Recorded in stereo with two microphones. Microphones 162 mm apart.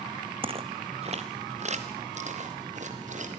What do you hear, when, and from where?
0.4 s footsteps: 35° right (ahead or behind), 0.8 m; by 3.3 s 50° right (ahead or behind), 3 m